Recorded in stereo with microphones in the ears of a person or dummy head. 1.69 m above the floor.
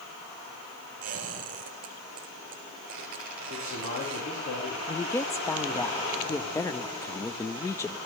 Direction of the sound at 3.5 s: 50° left (ahead or behind).